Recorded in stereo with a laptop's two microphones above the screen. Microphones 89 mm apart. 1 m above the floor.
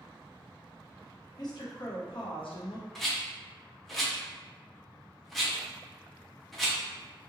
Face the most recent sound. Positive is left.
turn(degrees=5)  # may be behind; listen again after turning